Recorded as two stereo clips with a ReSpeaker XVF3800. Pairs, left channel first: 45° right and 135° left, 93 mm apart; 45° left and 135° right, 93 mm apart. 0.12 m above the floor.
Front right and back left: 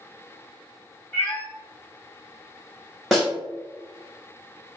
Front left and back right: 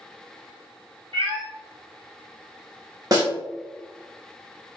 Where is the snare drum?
135° right, 1.3 m.